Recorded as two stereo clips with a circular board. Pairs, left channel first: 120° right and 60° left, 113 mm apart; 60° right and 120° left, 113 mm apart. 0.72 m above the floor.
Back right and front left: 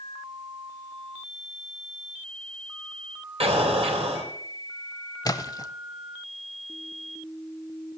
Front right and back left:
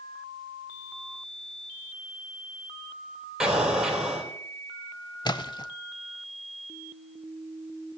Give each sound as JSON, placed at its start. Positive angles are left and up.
{"t": 3.4, "sound": "an explosion", "azimuth_deg": 35, "distance_m": 3.0}
{"t": 5.2, "sound": "a splash", "azimuth_deg": -80, "distance_m": 0.6}